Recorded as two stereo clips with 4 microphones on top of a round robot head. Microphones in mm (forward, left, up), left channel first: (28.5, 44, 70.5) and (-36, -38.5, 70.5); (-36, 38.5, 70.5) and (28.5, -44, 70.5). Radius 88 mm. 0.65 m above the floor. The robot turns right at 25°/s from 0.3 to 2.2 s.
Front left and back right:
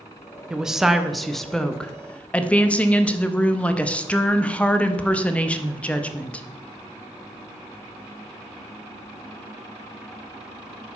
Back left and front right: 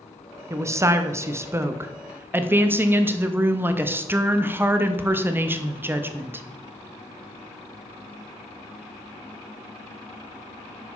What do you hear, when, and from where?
0.5 s a woman speaking: 55° right, 0.6 m; by 6.5 s 10° right, 0.6 m